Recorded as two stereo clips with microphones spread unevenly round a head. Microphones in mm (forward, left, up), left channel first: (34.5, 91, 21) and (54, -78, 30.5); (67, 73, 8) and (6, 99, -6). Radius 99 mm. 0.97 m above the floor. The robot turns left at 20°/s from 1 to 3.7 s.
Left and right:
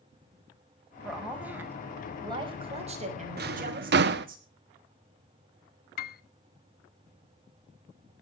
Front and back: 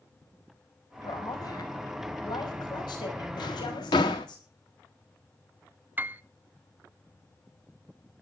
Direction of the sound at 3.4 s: 55° right.